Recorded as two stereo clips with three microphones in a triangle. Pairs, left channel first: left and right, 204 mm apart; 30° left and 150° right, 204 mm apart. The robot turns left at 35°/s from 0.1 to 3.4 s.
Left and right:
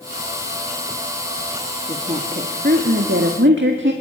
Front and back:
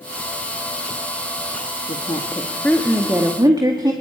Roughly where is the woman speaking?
Ahead right.